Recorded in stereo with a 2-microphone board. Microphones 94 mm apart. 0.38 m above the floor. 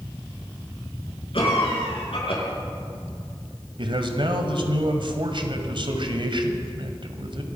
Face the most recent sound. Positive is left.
turn(degrees=-60)  # may be behind; listen again after turning